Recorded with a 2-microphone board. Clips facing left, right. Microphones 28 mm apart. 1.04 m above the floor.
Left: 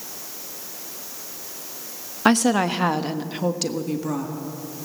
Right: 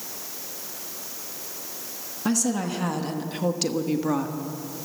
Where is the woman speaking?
70° left (ahead or behind), 1.3 m; by 4.4 s 25° right (ahead or behind), 1.6 m.